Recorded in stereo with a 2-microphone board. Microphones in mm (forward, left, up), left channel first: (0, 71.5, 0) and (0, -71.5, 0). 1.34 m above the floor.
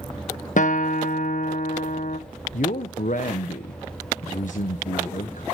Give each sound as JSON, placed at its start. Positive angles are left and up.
{"t": 0.6, "sound": "a guitar", "side_deg": 60, "distance_m": 1.3}
{"t": 2.5, "sound": "a man speaking", "side_deg": 60, "distance_m": 1.1}